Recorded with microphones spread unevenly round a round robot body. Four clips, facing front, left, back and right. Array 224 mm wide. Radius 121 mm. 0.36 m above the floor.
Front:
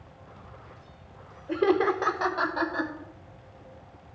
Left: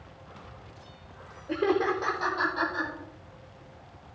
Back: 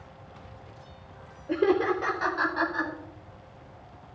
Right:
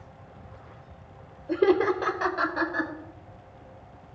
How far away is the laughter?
About 0.9 m.